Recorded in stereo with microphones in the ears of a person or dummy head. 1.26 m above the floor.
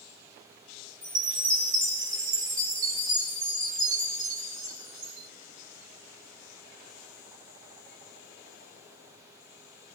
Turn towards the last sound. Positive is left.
turn(degrees=-30)  # may be behind; listen again after turning